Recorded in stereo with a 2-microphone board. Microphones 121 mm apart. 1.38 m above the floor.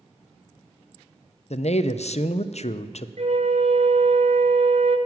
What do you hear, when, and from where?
1.5 s a man speaking: 65° left (ahead or behind), 0.5 m
3.2 s a flute: 60° right (ahead or behind), 0.9 m